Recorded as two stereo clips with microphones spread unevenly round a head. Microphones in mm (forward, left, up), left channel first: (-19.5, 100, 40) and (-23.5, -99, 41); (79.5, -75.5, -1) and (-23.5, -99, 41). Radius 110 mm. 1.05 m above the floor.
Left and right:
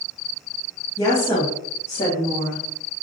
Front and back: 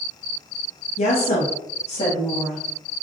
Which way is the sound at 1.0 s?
15° left.